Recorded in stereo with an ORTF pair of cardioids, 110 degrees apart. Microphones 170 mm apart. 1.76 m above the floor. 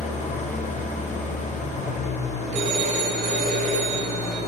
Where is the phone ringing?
45° right, 2 m.